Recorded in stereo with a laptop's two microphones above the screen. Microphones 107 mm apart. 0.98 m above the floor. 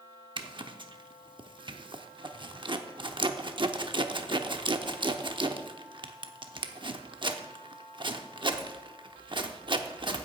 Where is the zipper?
50° right (ahead or behind), 0.8 m.